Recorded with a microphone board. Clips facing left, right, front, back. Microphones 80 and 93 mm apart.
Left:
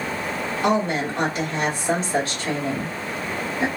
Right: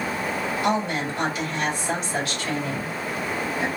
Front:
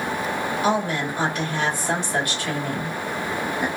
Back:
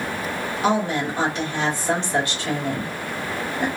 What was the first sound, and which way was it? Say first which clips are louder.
A woman speaking: left 4 dB, back 3 dB; 125° left.